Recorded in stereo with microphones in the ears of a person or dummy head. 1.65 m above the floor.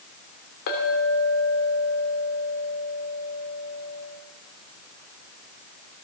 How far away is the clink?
About 2.5 m.